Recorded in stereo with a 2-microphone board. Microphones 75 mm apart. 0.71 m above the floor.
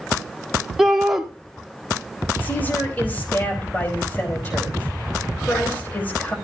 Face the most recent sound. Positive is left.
turn(degrees=25)  # may be behind; listen again after turning